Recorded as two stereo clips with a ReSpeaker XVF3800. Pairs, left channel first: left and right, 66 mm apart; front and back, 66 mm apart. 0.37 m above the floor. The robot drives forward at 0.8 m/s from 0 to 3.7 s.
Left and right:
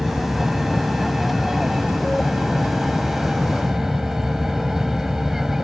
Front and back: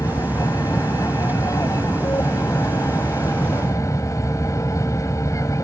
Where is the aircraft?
5° right; by 5.7 s 10° right.